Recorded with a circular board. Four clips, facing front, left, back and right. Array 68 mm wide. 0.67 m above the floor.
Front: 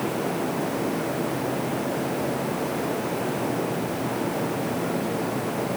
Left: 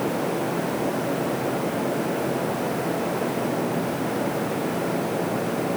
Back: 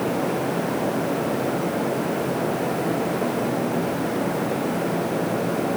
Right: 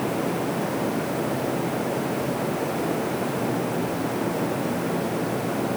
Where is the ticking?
No ticking in this recording.